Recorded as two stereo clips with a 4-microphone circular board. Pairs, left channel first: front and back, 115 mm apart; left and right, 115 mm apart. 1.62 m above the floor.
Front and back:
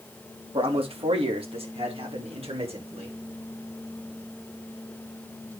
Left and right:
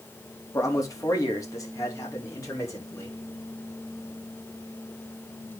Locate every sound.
0.5 s a man speaking: 150° left, 3.5 m